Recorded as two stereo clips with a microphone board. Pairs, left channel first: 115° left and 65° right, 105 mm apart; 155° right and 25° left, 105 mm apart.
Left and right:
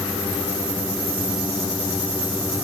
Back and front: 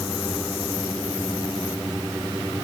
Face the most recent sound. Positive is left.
No sound to turn to.